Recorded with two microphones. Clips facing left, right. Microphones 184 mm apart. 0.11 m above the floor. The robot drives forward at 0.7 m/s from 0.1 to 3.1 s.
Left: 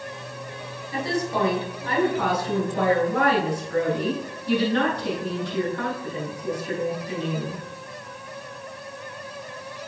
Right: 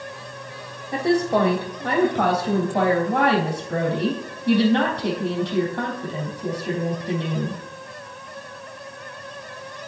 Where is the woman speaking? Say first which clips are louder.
Right 7 dB; 65° right (ahead or behind), 4 m; by 7.6 s 70° right (ahead or behind), 3.5 m.